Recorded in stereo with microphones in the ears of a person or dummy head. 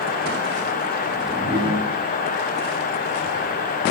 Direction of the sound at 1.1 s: 30° right (ahead or behind).